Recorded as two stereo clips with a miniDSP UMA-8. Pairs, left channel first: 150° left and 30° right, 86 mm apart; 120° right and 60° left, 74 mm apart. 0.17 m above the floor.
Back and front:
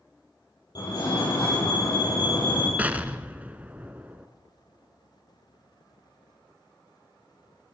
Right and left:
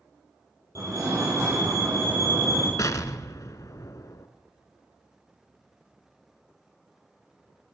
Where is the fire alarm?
110° left, 8 m.